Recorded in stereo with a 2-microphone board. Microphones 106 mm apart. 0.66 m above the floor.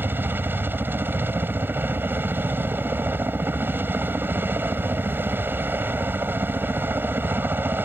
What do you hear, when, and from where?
0.0 s a helicopter: 20° right (ahead or behind)